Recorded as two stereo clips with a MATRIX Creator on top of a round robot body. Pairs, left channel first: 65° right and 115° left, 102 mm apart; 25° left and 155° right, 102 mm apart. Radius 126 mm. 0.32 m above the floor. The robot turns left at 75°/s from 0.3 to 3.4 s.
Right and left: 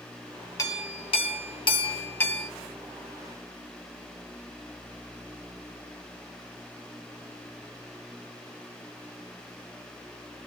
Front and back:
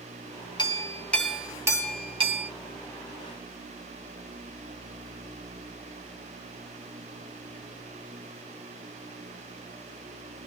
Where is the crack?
I don't hear a crack.